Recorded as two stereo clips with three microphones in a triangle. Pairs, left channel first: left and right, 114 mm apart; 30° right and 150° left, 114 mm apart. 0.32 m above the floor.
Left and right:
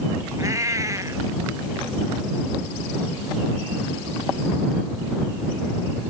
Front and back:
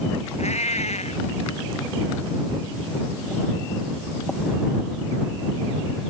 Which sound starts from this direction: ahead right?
A cat meowing, at 0.4 s.